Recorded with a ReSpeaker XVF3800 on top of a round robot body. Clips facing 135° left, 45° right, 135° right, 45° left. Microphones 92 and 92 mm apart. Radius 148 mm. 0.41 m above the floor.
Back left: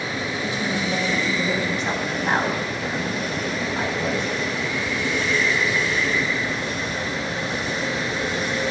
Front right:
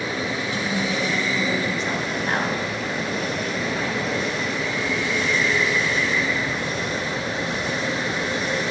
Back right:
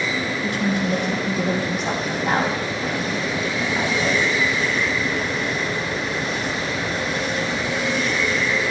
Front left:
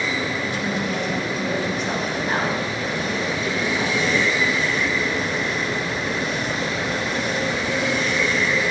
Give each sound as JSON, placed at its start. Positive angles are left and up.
{"t": 0.4, "sound": "a woman speaking", "azimuth_deg": -155, "distance_m": 5.5}